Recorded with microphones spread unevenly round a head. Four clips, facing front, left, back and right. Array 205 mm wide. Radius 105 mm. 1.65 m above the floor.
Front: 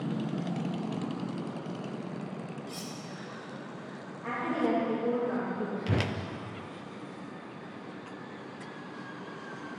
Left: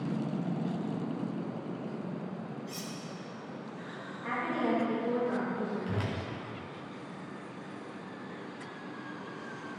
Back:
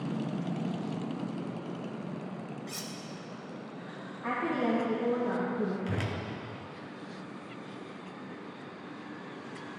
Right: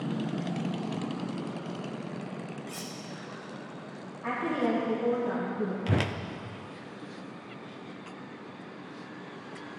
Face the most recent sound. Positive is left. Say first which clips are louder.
# right 5 dB, front 3 dB
turn(degrees=-70)